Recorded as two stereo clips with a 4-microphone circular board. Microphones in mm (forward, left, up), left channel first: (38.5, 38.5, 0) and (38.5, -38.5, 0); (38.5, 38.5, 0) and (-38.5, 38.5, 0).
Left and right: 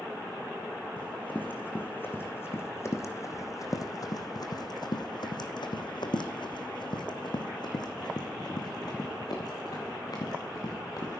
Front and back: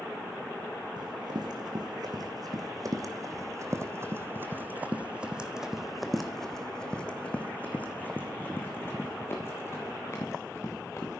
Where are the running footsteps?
160° left, 2.5 m; by 11.2 s 50° left, 3.5 m.